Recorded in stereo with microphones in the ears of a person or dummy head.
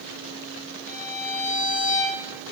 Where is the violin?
10° left (ahead or behind), 1.5 m.